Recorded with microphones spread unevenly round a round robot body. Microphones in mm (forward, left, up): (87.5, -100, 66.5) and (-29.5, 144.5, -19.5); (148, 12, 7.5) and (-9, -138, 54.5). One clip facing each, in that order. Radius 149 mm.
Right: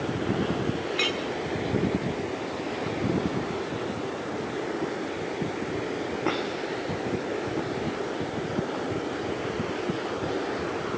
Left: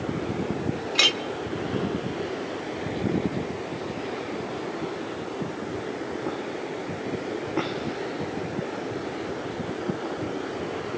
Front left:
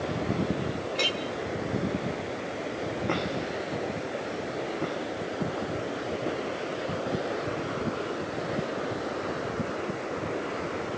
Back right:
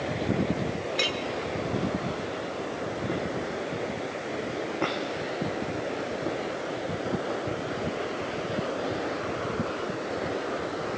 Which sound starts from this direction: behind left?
A clink, at 0.9 s.